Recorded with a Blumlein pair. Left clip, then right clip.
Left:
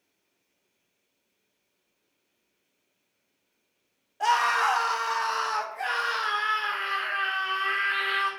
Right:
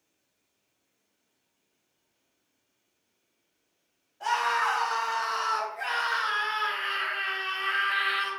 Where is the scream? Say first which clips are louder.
Left 3 dB; 50° left, 1.1 m; by 8.3 s straight ahead, 2.5 m.